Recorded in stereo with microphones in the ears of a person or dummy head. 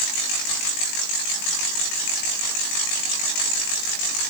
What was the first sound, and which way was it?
Only background noise.